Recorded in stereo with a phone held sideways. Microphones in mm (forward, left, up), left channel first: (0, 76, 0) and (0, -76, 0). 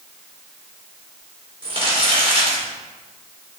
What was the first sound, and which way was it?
Crumpling, 40° right (ahead or behind).